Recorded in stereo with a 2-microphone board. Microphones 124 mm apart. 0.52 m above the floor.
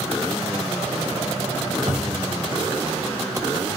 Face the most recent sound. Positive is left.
turn(degrees=-55)  # may be behind; listen again after turning